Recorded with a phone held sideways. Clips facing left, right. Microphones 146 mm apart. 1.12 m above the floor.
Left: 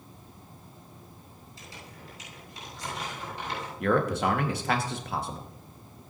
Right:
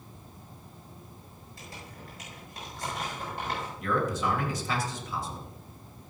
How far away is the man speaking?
About 1.6 m.